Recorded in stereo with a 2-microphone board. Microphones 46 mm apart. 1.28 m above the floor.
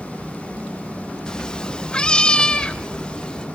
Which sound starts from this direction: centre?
A cat meowing, at 1.3 s.